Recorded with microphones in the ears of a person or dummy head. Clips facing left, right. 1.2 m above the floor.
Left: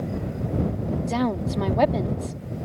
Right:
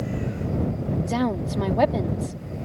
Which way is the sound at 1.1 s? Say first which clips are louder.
Even; 5° right (ahead or behind).